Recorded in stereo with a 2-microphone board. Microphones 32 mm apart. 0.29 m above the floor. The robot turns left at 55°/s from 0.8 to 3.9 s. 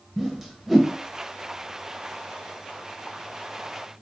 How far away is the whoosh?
About 0.5 m.